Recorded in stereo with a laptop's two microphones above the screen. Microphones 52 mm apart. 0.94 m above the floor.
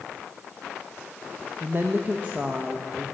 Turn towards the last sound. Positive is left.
turn(degrees=-20)  # may be behind; listen again after turning